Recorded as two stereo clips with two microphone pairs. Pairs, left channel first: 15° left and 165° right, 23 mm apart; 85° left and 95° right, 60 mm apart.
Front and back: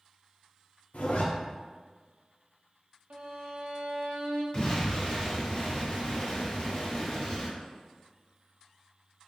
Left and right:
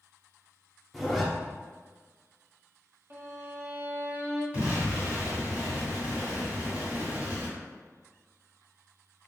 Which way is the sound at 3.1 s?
150° right.